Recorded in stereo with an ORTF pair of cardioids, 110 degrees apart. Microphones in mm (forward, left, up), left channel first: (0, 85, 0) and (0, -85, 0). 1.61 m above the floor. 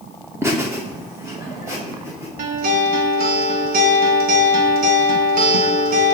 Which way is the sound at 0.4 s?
15° right.